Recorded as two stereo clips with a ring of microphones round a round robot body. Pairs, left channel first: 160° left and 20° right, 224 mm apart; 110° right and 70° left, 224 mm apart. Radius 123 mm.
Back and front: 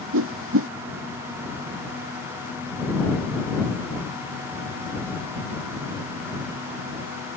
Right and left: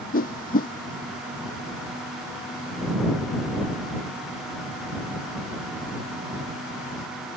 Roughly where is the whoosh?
Ahead right.